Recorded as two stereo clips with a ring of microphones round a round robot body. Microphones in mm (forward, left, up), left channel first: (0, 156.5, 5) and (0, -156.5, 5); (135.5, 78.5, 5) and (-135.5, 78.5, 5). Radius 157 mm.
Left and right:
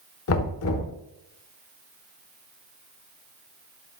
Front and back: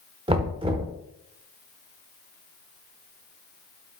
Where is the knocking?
115° left, 1.0 m.